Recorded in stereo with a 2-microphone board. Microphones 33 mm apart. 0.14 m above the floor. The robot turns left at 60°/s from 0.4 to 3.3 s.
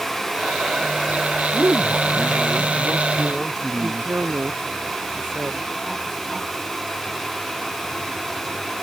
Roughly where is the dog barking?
I don't hear a dog barking.